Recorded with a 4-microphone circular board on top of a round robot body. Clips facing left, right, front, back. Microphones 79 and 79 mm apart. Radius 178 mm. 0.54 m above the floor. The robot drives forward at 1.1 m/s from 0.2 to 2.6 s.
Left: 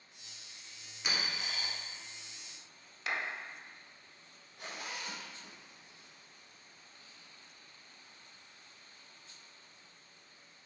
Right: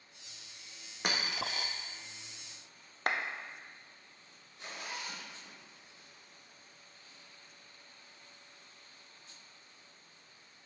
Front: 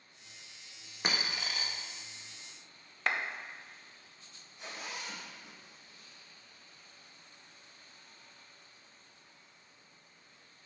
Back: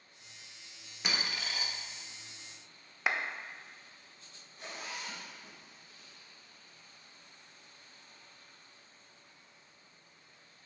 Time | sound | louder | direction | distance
1.0 | a dropped coin | right 3 dB, front 1 dB | 50° right | 0.9 m
3.1 | a clap | right 3 dB, even | 100° right | 0.8 m
4.6 | a zipper | even, even | 125° left | 2.5 m